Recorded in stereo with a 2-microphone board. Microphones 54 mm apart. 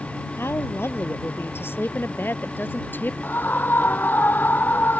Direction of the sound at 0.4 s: 50° left (ahead or behind).